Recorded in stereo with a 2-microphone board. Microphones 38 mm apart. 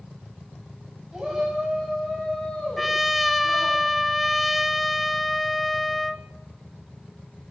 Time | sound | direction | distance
1.1 | a shout | 10° right (ahead or behind) | 3.5 m
2.8 | a trumpet | 5° right (ahead or behind) | 0.7 m